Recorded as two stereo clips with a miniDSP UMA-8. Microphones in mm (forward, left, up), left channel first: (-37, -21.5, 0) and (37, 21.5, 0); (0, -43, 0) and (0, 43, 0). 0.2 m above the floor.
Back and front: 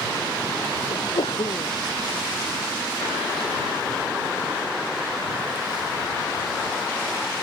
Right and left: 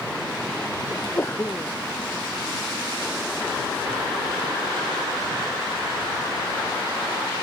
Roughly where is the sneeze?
Behind right.